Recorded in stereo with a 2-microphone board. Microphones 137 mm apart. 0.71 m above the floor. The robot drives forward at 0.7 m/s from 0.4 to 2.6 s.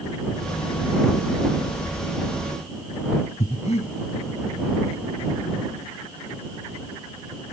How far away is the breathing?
About 3.5 m.